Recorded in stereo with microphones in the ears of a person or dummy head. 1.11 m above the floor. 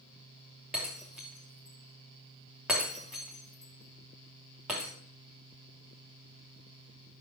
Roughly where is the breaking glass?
Centre.